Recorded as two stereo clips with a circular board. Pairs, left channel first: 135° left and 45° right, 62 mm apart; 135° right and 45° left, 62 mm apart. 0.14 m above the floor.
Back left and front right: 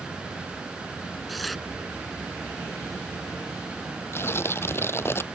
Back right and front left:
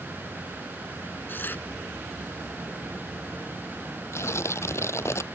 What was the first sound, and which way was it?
Tearing paper, 135° right.